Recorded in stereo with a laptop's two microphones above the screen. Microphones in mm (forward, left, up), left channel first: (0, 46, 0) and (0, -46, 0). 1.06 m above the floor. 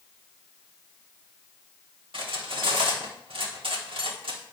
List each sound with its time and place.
2.1 s cutlery clinking: 70° right (ahead or behind), 1.4 m